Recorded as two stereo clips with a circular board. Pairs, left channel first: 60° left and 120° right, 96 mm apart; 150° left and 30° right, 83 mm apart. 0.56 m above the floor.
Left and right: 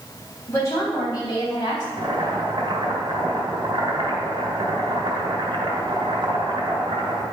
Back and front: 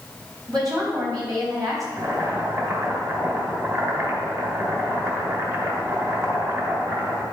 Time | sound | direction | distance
0.5 | a woman speaking | 5° left | 4 m
2.0 | boiling | 85° right | 2 m